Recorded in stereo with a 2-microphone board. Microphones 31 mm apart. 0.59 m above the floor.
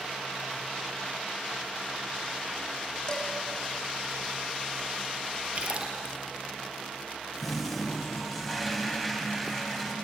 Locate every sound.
3.1 s dishes clattering: 25° left (ahead or behind), 3 m
5.5 s a splash: 40° right (ahead or behind), 4 m
7.4 s a toilet flushing: 5° left (ahead or behind), 4 m